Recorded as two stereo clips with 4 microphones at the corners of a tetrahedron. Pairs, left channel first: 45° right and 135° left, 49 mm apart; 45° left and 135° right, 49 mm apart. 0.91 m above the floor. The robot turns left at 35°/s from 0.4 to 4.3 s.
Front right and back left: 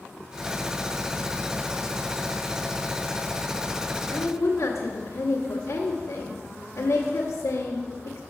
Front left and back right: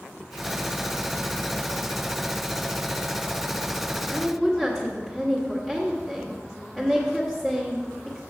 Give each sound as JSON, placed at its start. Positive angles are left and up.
{"t": 4.1, "sound": "a woman speaking", "azimuth_deg": -30, "distance_m": 1.3}